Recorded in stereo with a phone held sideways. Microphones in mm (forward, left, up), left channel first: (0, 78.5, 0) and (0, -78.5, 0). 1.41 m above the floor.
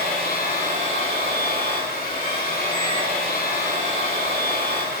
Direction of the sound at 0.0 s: 65° left (ahead or behind).